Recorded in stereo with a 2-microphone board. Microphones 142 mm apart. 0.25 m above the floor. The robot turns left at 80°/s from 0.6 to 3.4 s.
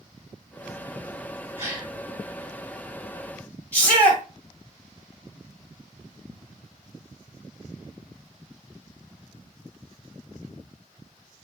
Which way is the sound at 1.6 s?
20° right (ahead or behind).